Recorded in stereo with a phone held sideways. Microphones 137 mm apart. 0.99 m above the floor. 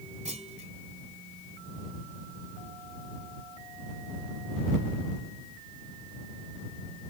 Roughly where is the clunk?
Right.